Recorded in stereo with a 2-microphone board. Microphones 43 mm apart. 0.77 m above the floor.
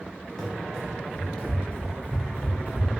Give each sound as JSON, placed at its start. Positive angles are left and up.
{"t": 0.4, "sound": "running footsteps", "side_deg": 15, "distance_m": 1.5}